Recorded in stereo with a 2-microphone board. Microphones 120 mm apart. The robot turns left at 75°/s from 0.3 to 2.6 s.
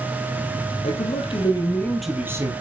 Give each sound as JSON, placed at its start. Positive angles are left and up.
{"t": 0.8, "sound": "a man speaking", "azimuth_deg": 90, "distance_m": 4.0}